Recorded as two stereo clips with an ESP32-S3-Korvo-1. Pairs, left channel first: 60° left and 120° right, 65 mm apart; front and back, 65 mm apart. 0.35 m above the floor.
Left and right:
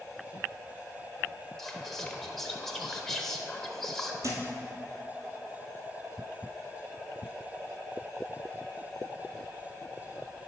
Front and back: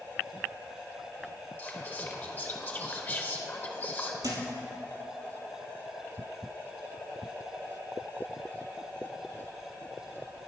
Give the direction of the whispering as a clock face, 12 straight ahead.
1 o'clock.